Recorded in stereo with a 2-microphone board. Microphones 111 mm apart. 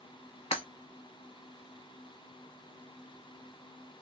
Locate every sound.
0.5 s breaking glass: 60° left (ahead or behind), 0.9 m